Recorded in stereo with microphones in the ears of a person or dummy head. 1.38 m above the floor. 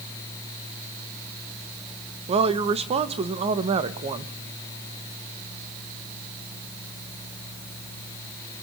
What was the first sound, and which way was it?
A woman speaking, 30° right (ahead or behind).